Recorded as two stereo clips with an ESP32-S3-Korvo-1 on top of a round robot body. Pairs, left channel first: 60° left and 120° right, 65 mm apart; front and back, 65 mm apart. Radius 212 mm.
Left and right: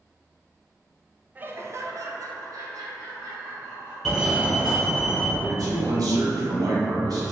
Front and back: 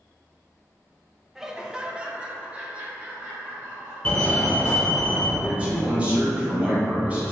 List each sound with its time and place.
1.4 s laughter: 100° right, 0.7 m; by 4.0 s 110° right, 2 m
4.0 s a fire alarm: 40° right, 1.5 m
5.4 s a man speaking: 110° right, 1.5 m